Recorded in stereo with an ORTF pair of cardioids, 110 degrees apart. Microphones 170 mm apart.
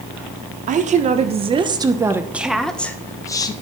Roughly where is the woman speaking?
Ahead right.